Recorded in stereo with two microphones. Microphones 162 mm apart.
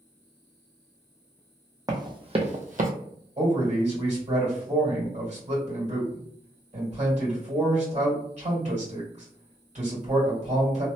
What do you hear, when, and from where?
1.9 s running footsteps: 25° right (ahead or behind), 0.8 m; by 2.9 s 60° right (ahead or behind), 0.6 m
3.4 s a man speaking: 45° right (ahead or behind), 2.0 m